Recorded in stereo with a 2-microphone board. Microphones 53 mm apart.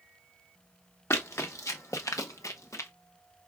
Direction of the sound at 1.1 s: 65° left (ahead or behind).